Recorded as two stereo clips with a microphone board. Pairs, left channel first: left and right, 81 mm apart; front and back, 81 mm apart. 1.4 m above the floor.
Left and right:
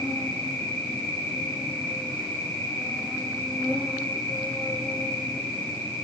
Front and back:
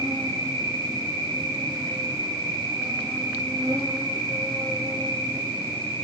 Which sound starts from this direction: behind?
An insect, at 0.0 s.